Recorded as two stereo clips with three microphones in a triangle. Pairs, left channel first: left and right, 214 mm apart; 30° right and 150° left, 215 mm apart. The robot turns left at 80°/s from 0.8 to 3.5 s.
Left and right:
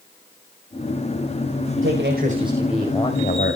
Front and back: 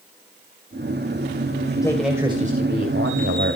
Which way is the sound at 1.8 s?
100° right.